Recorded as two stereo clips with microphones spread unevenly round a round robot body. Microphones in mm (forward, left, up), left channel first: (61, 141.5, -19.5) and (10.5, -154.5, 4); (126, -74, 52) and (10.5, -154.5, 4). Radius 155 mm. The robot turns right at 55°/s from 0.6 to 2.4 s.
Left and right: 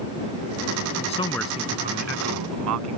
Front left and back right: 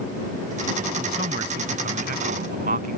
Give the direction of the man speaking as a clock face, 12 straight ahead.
7 o'clock.